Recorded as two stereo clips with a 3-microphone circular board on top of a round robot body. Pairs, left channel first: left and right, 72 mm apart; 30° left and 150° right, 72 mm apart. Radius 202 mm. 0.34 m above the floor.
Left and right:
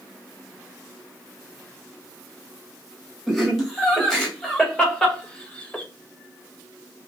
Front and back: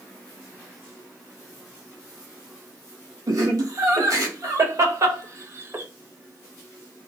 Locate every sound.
3.3 s laughter: 175° left, 2.5 m; by 5.8 s 160° left, 1.3 m